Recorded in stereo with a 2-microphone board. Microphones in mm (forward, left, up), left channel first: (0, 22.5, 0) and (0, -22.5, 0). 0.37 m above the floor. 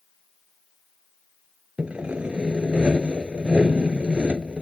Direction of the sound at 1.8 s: 25° right (ahead or behind).